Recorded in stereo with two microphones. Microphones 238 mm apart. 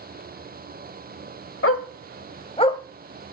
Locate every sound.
1.6 s a dog barking: 70° left (ahead or behind), 0.9 m; by 2.8 s 15° left (ahead or behind), 0.8 m